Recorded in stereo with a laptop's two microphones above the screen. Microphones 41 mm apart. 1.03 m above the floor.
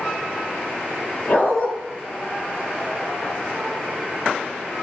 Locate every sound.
1.3 s a dog barking: 40° left (ahead or behind), 0.7 m